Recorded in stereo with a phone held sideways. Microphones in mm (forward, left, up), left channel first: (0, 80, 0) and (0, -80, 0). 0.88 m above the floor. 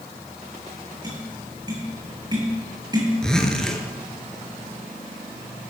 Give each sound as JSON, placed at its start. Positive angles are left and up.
{"t": 1.0, "sound": "tapping", "side_deg": -25, "distance_m": 9.0}
{"t": 3.2, "sound": "a zipper", "side_deg": 5, "distance_m": 3.5}